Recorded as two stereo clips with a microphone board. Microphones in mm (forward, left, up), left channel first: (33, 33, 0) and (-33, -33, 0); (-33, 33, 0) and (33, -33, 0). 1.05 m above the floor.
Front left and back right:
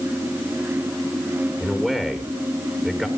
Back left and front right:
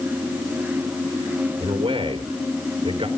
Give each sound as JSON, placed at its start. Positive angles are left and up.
{"t": 1.6, "sound": "a man speaking", "azimuth_deg": -45, "distance_m": 3.5}